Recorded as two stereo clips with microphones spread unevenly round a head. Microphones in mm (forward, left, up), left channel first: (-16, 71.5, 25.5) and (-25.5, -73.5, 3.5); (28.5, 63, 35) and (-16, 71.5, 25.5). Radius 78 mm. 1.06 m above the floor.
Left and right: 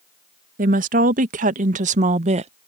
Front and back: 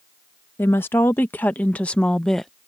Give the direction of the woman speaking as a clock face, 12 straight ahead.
2 o'clock.